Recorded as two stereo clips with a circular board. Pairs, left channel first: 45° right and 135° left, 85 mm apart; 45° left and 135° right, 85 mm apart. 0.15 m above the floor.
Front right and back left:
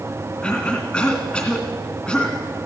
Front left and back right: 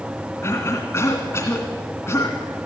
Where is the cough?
25° left, 2.0 m.